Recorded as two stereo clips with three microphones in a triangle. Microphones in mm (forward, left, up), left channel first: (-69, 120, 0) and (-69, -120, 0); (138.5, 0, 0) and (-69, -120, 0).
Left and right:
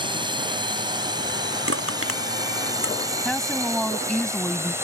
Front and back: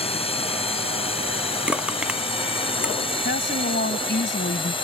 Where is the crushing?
65° right.